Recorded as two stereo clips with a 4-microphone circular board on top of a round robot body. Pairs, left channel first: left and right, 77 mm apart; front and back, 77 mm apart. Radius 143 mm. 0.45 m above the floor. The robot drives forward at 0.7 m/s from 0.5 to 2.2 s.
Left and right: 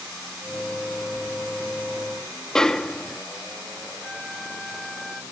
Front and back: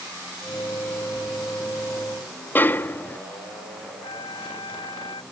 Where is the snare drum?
15° left.